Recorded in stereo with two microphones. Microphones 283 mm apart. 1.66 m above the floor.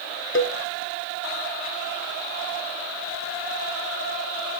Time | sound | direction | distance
0.3 | a cowbell | 50° left (ahead or behind) | 0.9 m